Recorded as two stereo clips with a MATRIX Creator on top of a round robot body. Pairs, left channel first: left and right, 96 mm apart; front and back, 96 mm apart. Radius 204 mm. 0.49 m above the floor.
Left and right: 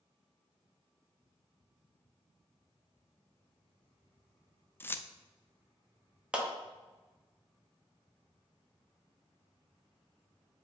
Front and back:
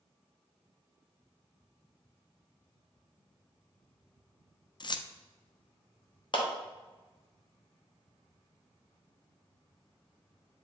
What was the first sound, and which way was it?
Keys jangling, 25° left.